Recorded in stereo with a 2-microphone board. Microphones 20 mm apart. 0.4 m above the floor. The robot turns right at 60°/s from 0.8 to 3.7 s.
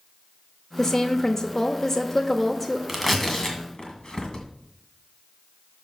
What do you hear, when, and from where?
0.8 s a woman speaking: 15° left (ahead or behind), 0.9 m; by 2.8 s 10° left (ahead or behind), 0.9 m
2.9 s tearing paper: 5° right (ahead or behind), 1.8 m; by 4.5 s 45° left (ahead or behind), 1.8 m